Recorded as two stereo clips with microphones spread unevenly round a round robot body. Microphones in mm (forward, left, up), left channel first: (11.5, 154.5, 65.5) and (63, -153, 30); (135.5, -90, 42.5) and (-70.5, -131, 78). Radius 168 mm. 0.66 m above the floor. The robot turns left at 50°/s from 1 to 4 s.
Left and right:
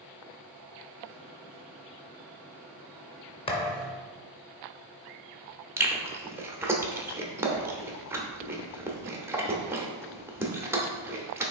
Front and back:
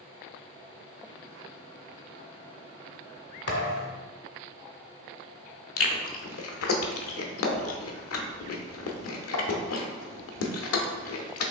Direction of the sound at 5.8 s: Straight ahead.